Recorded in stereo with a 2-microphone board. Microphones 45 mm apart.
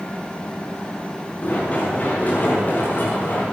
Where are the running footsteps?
35° left (ahead or behind), 8 m; by 3.4 s 45° left (ahead or behind), 9 m.